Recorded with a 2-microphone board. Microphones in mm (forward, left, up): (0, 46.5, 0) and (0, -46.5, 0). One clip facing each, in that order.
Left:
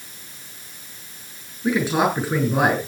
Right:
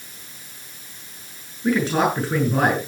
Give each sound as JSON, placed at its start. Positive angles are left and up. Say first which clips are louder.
{"t": 1.6, "sound": "a man speaking", "louder": "even", "side_deg": 5, "distance_m": 8.0}